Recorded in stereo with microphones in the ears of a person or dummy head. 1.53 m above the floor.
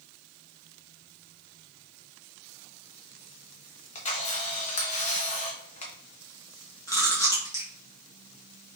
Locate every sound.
4.0 s a camera shutter: 35° left (ahead or behind), 1.0 m
6.9 s chewing: 15° left (ahead or behind), 1.4 m